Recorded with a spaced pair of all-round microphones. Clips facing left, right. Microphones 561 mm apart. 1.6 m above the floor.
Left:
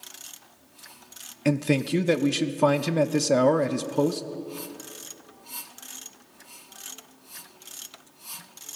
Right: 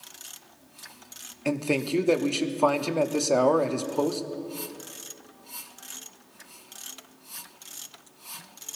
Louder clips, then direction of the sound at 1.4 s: Left 3 dB; 45° left (ahead or behind).